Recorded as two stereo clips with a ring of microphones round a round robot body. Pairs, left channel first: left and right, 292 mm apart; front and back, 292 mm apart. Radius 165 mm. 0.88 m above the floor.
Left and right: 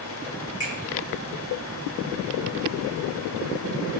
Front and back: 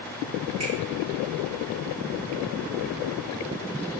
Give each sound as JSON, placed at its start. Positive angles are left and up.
{"t": 0.6, "sound": "a finger snap", "azimuth_deg": 130, "distance_m": 1.9}